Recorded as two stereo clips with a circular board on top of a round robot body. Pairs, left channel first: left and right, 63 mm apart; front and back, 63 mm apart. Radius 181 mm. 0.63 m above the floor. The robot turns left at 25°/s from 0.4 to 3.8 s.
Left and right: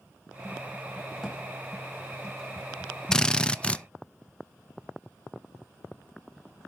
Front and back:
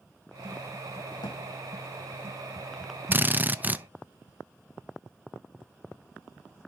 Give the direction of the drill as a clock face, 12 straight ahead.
7 o'clock.